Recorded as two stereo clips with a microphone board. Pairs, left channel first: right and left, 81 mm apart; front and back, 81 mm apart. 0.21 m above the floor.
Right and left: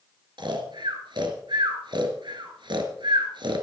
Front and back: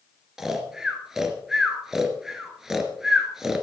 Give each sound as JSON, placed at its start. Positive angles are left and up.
{"t": 0.4, "sound": "snoring", "azimuth_deg": 95, "distance_m": 2.5}